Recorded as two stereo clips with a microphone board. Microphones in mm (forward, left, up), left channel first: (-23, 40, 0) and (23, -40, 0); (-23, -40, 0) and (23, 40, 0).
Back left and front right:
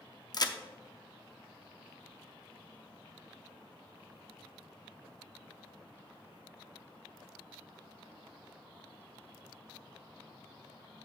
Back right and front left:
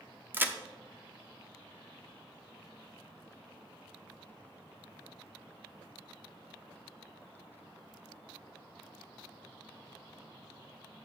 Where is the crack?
120° left, 0.6 m.